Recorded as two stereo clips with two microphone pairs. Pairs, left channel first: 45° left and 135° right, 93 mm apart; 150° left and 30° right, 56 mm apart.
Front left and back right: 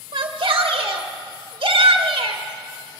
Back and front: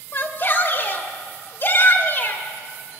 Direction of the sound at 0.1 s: 160° right.